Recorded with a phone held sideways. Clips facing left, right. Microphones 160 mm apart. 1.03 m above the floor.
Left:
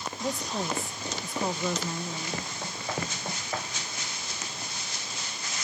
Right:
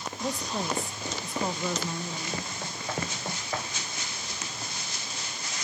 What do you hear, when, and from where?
0.2 s a woman speaking: centre (ahead or behind), 0.6 m